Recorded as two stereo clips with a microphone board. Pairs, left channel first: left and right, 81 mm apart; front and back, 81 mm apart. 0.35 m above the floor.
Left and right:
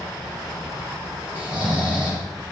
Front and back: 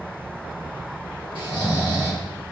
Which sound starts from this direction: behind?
Snoring, at 1.4 s.